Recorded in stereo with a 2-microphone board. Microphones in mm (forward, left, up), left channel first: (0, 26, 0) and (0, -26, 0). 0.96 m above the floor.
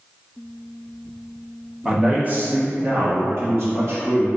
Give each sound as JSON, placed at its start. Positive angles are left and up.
{"t": 1.9, "sound": "a man speaking", "side_deg": -20, "distance_m": 0.7}